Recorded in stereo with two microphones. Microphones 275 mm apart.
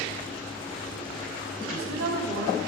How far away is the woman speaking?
About 6 m.